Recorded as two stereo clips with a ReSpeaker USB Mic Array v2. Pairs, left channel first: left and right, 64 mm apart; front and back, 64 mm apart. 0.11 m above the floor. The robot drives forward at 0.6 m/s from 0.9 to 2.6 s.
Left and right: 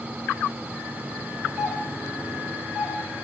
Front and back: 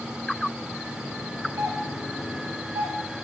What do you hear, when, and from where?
1.6 s a doorbell: 155° right, 3 m; by 3.0 s 160° right, 3.5 m